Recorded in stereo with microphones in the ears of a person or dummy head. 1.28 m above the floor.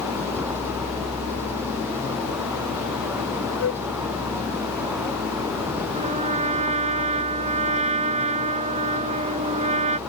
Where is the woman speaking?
I don't hear a woman speaking.